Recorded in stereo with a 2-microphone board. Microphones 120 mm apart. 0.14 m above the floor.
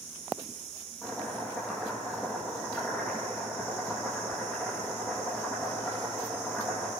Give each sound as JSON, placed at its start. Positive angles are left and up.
{"t": 1.0, "sound": "chopping", "side_deg": 5, "distance_m": 6.5}